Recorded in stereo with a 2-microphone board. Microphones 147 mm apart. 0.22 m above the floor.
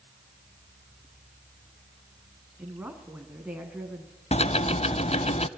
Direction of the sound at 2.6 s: 10° right (ahead or behind).